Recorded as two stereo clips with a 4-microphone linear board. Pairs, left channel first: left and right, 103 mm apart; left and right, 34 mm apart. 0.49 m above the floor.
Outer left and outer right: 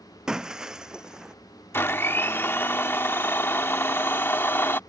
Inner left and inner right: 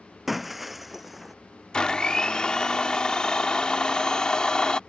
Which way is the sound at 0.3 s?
5° right (ahead or behind).